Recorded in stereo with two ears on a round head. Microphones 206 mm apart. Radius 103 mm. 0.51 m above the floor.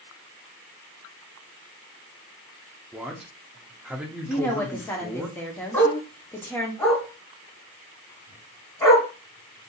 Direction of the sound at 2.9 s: 5° right (ahead or behind).